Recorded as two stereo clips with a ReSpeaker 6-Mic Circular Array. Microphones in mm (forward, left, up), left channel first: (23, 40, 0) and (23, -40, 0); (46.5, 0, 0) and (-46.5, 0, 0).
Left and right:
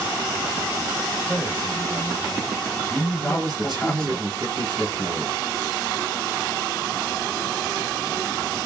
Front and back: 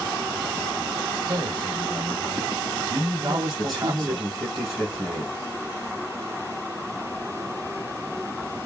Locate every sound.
1.3 s a man speaking: 160° left, 1.5 m
3.2 s a man speaking: 85° right, 2.5 m